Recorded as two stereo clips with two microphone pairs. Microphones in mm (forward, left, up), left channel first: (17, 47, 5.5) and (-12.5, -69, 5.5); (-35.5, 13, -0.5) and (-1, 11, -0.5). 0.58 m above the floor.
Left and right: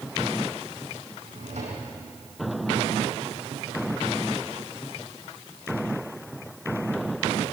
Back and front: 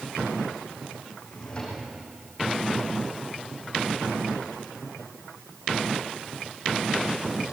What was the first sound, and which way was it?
A drawer, 120° right.